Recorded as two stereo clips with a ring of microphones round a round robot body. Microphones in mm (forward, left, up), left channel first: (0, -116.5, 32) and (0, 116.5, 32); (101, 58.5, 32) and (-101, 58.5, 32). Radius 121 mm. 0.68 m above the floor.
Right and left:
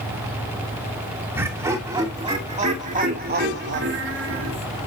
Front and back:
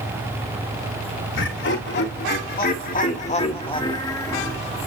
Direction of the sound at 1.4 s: 10° left.